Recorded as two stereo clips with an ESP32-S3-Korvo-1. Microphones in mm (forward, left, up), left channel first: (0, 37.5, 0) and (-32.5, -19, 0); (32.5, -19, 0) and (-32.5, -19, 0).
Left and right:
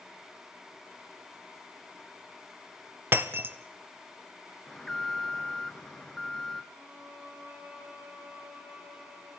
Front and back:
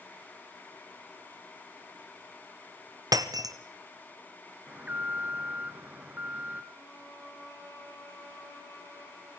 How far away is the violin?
About 5.5 m.